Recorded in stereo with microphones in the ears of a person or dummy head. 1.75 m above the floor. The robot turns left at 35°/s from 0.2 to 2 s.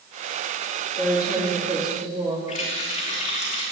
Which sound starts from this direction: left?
A running tap, at 2.5 s.